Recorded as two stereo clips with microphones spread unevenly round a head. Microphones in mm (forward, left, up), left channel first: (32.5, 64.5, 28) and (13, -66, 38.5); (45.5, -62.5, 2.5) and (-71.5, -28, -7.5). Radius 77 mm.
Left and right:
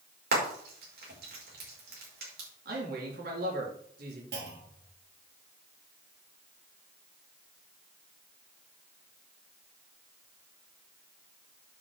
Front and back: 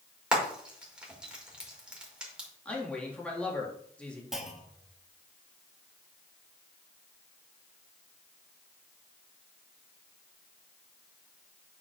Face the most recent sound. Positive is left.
turn(degrees=-110)